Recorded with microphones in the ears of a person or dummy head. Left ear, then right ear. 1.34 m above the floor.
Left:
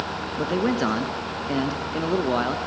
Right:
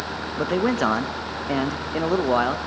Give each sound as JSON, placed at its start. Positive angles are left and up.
{"t": 0.4, "sound": "a man speaking", "side_deg": -25, "distance_m": 1.1}